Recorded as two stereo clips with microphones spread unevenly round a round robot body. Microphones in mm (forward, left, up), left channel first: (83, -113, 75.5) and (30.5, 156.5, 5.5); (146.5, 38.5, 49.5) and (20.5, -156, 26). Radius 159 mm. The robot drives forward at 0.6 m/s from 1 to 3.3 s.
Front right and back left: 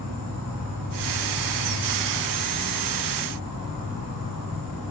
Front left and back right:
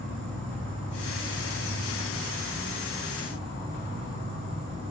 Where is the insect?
145° left, 1.9 m; by 4.9 s 160° left, 3 m.